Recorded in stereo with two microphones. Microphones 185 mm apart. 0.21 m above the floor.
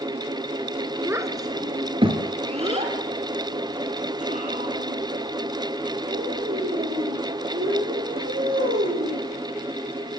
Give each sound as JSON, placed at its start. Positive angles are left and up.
{"t": 1.1, "sound": "a child speaking", "side_deg": -15, "distance_m": 2.0}